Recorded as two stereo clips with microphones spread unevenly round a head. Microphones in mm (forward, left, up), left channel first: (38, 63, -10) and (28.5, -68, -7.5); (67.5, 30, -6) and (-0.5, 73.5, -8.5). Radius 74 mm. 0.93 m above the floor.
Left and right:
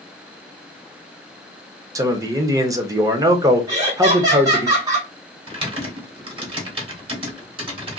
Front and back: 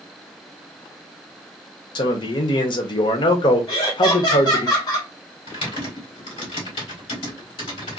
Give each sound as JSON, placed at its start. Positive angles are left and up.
{"t": 1.9, "sound": "a man speaking", "azimuth_deg": -30, "distance_m": 0.7}
{"t": 3.7, "sound": "laughter", "azimuth_deg": -40, "distance_m": 0.9}
{"t": 5.5, "sound": "typing on a keyboard", "azimuth_deg": -45, "distance_m": 1.3}